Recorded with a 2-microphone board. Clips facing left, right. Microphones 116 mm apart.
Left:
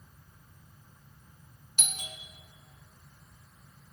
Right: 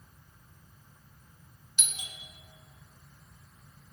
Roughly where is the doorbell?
Left.